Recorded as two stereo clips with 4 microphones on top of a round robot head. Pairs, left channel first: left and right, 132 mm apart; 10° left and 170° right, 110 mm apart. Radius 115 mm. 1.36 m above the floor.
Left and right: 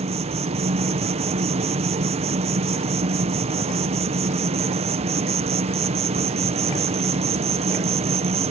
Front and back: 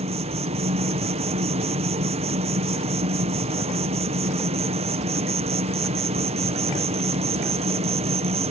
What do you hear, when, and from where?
0.0 s an insect: 135° right